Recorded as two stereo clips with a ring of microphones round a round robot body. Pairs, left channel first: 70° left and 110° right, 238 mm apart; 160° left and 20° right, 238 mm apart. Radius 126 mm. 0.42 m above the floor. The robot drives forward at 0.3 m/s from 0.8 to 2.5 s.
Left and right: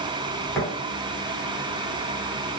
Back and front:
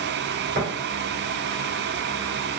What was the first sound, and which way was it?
Tapping, 15° right.